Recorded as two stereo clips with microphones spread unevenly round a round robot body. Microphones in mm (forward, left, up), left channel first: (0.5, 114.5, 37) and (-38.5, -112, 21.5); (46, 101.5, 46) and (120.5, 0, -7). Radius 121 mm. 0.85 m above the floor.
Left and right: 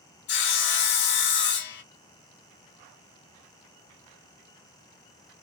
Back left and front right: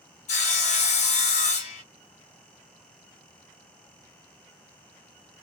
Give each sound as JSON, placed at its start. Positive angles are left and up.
{"t": 0.3, "sound": "sawing", "azimuth_deg": 120, "distance_m": 0.6}